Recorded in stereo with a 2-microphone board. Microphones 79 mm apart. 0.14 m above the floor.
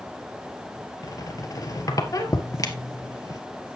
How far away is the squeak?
About 1.5 m.